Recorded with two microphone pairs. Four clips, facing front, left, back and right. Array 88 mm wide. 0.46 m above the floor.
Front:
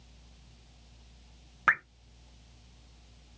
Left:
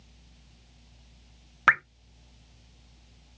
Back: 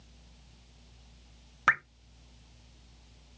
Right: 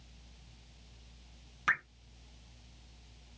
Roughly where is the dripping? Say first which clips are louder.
Left 10 dB, even; left.